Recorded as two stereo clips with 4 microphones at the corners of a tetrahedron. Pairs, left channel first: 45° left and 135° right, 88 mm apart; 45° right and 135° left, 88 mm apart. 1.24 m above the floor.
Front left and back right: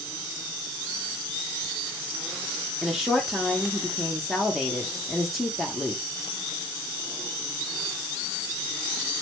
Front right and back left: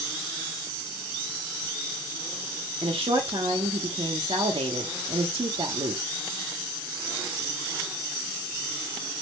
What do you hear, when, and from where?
2.8 s a woman speaking: 140° left, 0.6 m